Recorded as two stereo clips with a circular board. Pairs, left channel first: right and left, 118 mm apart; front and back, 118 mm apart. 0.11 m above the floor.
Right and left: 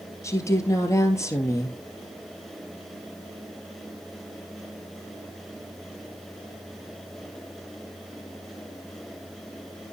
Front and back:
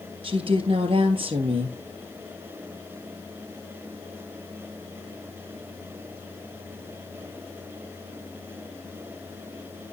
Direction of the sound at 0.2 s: 150° right.